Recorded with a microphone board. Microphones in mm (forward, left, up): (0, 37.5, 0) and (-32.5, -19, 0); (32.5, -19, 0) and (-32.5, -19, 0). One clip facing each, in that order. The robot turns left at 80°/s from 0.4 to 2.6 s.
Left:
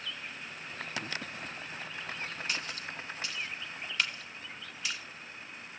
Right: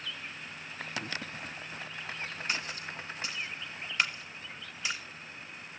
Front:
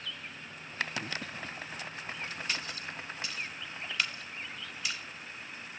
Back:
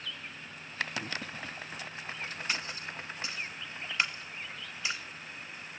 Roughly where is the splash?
Behind right.